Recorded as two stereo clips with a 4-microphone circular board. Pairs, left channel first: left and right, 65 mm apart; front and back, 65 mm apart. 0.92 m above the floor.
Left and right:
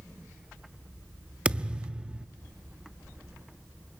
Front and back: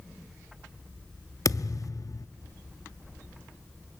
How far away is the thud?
About 0.6 m.